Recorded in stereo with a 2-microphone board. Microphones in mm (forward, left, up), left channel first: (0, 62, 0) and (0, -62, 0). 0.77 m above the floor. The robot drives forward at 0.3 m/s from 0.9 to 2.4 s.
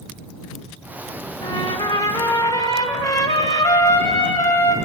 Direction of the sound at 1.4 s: 35° left (ahead or behind).